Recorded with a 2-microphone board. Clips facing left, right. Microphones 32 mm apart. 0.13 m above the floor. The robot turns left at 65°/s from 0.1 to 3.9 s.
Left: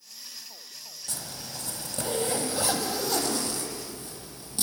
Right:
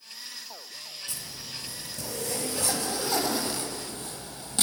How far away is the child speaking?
No child speaking in this recording.